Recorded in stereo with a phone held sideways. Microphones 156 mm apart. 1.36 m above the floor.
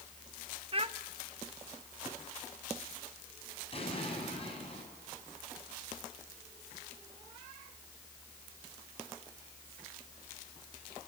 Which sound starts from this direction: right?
A child speaking, at 0.7 s.